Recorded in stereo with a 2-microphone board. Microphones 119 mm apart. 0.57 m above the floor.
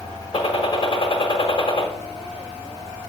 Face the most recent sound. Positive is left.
turn(degrees=50)  # may be behind; listen again after turning